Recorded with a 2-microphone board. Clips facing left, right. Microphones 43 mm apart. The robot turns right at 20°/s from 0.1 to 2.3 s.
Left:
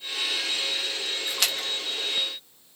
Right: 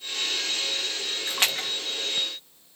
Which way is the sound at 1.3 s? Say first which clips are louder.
Right 4 dB; 35° right (ahead or behind).